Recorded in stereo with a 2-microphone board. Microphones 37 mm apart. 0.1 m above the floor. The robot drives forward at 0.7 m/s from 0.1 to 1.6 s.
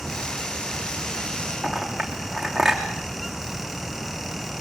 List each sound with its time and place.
1.6 s a clink: centre (ahead or behind), 3.5 m